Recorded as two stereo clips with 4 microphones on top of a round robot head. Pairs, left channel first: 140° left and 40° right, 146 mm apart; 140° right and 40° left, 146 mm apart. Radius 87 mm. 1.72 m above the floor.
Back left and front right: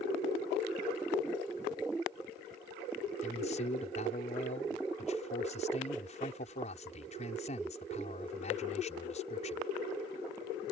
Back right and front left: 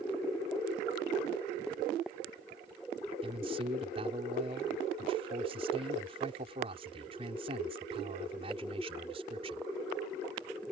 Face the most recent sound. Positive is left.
turn(degrees=95)